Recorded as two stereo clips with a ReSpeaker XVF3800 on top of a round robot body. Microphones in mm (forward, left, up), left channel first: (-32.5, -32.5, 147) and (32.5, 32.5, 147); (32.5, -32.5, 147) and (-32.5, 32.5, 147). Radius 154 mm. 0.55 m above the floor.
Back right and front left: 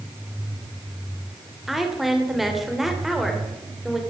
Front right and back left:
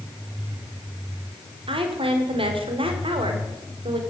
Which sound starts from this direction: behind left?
A woman speaking, at 1.7 s.